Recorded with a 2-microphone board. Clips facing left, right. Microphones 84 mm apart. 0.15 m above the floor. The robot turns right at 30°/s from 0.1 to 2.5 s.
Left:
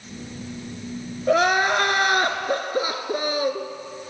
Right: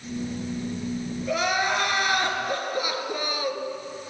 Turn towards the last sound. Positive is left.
turn(degrees=135)